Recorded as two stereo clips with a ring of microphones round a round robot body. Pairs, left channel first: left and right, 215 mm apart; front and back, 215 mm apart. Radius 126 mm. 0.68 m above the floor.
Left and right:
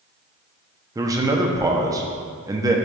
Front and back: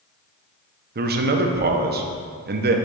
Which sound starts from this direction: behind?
A man speaking, at 0.9 s.